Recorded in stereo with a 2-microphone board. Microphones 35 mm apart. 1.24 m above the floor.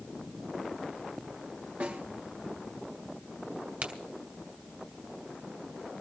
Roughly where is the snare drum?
Right.